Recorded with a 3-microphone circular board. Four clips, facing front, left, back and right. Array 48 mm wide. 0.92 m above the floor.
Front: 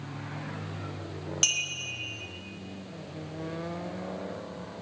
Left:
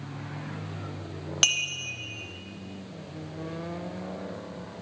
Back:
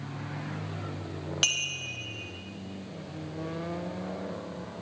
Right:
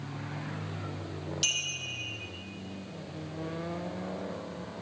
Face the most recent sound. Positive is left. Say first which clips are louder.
# left 7 dB, back 1 dB
turn(degrees=110)